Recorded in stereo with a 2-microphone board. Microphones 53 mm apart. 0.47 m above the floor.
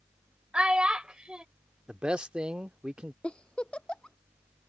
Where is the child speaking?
15° right (ahead or behind).